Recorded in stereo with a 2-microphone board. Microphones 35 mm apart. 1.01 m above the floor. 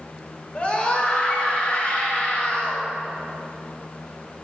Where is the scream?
30° left (ahead or behind), 4.5 m; by 2.8 s 40° left (ahead or behind), 6 m.